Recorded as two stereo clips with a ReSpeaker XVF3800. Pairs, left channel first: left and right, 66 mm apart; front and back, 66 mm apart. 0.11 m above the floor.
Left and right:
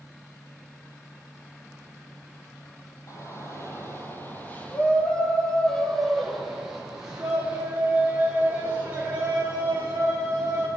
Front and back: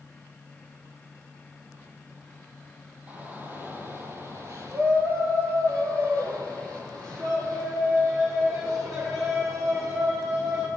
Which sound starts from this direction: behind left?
A shout, at 3.1 s.